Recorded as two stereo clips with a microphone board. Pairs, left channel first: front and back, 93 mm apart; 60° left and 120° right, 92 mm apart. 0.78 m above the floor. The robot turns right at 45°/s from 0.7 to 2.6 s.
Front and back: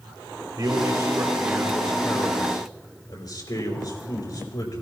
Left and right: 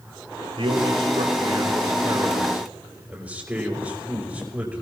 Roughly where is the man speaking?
Behind right.